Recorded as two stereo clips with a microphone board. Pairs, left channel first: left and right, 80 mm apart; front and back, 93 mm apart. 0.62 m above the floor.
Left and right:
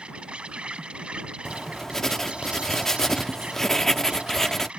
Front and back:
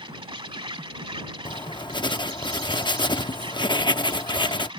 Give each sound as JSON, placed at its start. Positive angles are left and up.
{"t": 0.0, "sound": "an insect", "azimuth_deg": -165}
{"t": 1.4, "sound": "writing", "azimuth_deg": 5}